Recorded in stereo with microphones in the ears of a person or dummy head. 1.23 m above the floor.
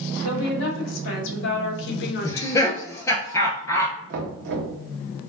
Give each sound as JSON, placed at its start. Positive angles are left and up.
{"t": 0.2, "sound": "a woman speaking", "side_deg": 70, "distance_m": 1.9}
{"t": 2.2, "sound": "laughter", "side_deg": 15, "distance_m": 0.5}
{"t": 4.1, "sound": "knocking", "side_deg": -60, "distance_m": 0.9}